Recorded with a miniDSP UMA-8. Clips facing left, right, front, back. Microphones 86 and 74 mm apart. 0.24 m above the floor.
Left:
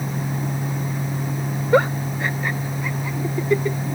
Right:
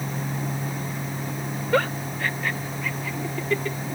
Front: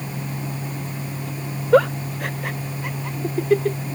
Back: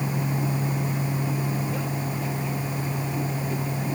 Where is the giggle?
20° left.